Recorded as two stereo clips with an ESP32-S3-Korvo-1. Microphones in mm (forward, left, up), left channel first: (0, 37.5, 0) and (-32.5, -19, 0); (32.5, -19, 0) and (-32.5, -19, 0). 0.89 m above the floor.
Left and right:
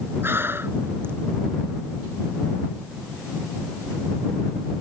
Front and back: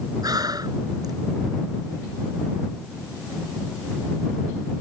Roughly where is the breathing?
Behind.